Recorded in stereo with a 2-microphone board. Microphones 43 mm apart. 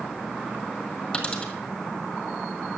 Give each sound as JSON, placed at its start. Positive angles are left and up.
{"t": 1.1, "sound": "a dropped coin", "side_deg": 20, "distance_m": 1.6}